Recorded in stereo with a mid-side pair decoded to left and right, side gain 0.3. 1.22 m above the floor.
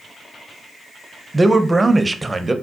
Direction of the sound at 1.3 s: 30° right.